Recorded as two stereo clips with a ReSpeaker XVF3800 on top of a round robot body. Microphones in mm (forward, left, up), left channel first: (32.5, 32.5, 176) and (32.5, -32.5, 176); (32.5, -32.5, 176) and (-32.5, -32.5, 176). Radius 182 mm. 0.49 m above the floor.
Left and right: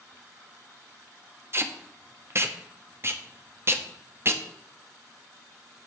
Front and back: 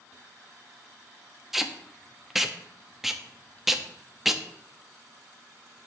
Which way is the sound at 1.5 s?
95° right.